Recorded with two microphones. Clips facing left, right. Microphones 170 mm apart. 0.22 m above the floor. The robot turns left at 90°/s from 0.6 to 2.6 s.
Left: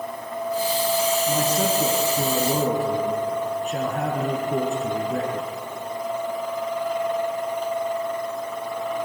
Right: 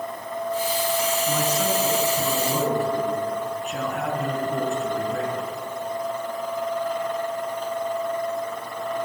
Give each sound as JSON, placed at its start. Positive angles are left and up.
{"t": 1.3, "sound": "a man speaking", "azimuth_deg": 165, "distance_m": 3.0}